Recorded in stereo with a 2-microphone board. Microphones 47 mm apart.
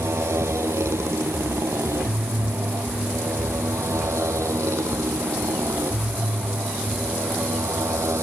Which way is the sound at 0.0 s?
70° right (ahead or behind).